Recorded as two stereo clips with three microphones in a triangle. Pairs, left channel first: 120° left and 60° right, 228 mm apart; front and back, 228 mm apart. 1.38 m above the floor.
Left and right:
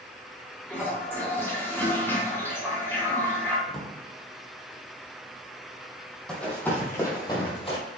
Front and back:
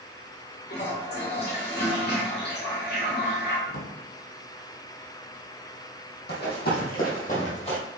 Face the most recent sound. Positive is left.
turn(degrees=60)